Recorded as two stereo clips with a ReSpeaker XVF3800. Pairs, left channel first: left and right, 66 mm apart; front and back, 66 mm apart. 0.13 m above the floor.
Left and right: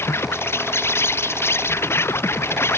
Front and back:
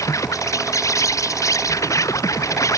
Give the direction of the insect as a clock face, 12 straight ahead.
11 o'clock.